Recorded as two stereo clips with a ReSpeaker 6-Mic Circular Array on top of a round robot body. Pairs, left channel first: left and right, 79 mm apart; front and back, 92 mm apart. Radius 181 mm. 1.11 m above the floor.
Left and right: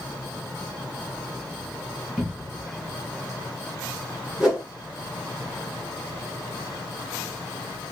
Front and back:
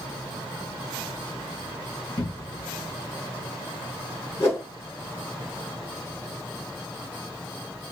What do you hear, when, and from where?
2.2 s a cupboard door: 5° right, 1.8 m
4.4 s a whoosh: 5° right, 1.1 m